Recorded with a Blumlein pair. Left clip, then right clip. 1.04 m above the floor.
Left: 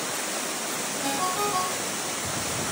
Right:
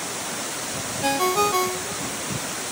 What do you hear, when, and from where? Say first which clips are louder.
1.0 s a ringtone: right 7 dB; 65° right, 0.8 m